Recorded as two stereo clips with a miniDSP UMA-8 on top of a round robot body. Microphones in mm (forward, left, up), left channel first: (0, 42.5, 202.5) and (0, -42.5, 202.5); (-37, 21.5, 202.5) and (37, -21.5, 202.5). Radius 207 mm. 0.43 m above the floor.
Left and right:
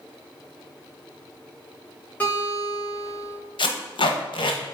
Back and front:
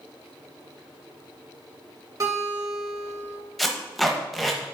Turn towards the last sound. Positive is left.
turn(degrees=60)